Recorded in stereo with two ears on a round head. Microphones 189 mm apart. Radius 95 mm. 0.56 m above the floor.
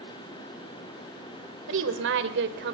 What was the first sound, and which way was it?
A woman speaking, 65° right (ahead or behind).